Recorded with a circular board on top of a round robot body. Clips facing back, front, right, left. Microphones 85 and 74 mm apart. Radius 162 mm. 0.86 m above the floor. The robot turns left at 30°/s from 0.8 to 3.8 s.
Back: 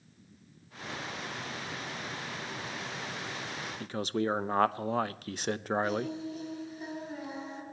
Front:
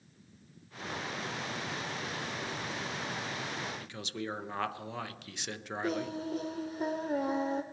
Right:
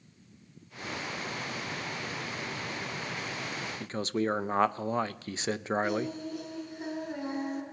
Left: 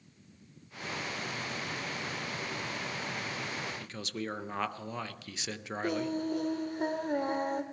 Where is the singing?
45° left, 1.2 m.